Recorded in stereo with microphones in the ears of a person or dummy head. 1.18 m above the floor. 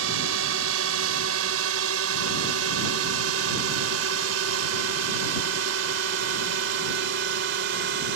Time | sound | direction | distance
0.0 | a drone | 75° right (ahead or behind) | ?